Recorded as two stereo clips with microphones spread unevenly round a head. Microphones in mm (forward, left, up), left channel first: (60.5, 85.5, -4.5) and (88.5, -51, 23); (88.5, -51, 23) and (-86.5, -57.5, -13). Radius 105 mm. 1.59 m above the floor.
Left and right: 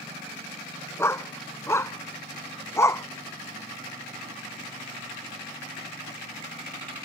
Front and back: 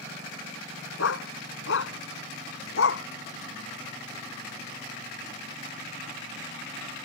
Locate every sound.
1.0 s a dog barking: 30° left